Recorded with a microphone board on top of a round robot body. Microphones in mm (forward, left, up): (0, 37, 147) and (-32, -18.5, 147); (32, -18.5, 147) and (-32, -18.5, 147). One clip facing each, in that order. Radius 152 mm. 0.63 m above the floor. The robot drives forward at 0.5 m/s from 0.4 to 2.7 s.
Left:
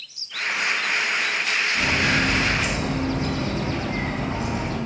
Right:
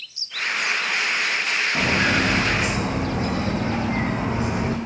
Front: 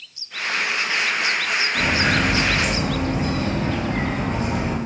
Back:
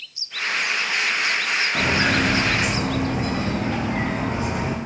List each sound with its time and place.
1.8 s footsteps: 140° right, 2.5 m; by 4.8 s 115° right, 3 m